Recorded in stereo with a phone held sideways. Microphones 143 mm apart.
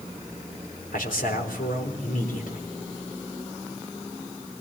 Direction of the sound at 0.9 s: 85° left.